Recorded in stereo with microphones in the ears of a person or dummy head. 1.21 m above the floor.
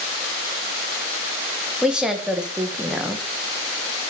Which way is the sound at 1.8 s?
5° right (ahead or behind).